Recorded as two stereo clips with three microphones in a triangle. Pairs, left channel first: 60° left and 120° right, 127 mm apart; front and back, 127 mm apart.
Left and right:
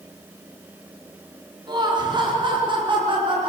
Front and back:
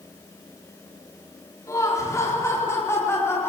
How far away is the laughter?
About 4 m.